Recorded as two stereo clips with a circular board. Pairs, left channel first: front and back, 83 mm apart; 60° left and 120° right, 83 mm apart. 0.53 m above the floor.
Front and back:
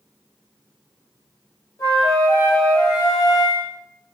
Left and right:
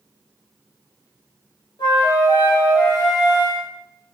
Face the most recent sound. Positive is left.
turn(degrees=40)